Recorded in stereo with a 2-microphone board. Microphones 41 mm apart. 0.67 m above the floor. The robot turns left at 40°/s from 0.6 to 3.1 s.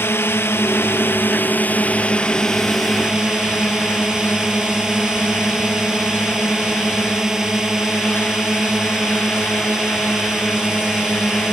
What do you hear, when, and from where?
0.0 s a drone: 85° left; by 11.5 s 15° right